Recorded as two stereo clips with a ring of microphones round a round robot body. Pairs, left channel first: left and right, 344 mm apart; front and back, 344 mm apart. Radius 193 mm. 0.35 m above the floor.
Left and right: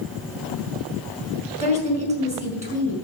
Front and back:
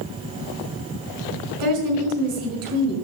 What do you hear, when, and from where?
1.6 s a woman speaking: 160° right, 5.5 m